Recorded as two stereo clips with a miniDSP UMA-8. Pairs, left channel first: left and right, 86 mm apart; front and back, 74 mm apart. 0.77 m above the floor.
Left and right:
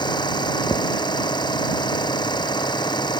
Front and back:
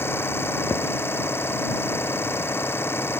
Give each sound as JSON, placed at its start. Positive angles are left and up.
{"t": 0.0, "sound": "an engine running", "azimuth_deg": 60}